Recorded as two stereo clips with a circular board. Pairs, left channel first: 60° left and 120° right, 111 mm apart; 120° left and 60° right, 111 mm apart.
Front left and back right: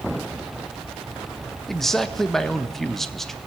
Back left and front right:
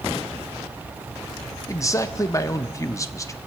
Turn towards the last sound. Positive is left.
turn(degrees=145)